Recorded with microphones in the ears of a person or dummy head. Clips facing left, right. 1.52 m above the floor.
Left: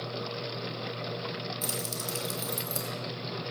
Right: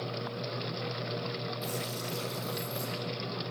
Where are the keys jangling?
55° left (ahead or behind), 2.0 m.